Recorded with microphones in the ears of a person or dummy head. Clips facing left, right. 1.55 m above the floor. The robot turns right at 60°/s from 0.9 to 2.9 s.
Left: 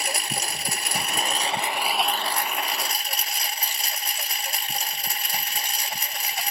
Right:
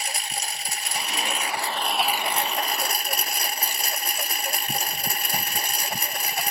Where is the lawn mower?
110° left; by 6.5 s 130° right.